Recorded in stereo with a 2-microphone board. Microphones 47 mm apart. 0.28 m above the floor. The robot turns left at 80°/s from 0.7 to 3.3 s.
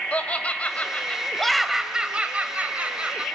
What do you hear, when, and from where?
0.1 s laughter: 65° left, 1.4 m; by 3.2 s 140° right, 1.4 m